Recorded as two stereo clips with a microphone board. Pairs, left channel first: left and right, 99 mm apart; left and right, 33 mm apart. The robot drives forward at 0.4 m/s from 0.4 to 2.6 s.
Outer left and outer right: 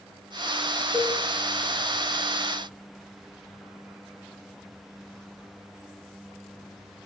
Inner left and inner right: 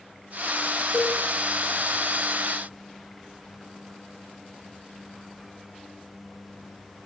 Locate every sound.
0.9 s a cowbell: 15° right (ahead or behind), 2.5 m